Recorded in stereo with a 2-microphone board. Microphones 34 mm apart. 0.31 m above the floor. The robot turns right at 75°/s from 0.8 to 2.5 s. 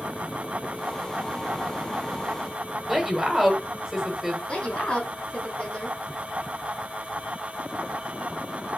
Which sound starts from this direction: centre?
A woman speaking, at 2.9 s.